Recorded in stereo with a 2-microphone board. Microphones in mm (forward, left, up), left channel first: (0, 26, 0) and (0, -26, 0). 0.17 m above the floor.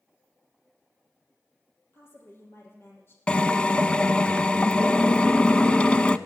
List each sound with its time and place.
1.9 s a woman speaking: 50° left (ahead or behind), 4 m
3.3 s a drill: 20° left (ahead or behind), 0.5 m